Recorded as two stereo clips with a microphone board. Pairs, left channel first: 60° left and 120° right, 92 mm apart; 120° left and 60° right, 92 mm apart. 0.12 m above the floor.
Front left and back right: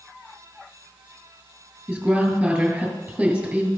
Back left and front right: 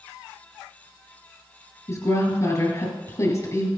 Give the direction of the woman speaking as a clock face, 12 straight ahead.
7 o'clock.